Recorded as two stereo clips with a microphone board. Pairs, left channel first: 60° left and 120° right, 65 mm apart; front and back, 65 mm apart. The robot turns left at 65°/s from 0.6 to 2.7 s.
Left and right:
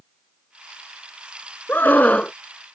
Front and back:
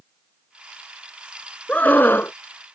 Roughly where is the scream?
Ahead left.